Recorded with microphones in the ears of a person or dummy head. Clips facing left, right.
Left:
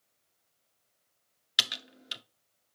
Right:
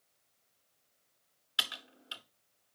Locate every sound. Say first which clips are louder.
1.6 s typing on a keyboard: left 3 dB; 30° left (ahead or behind), 0.5 m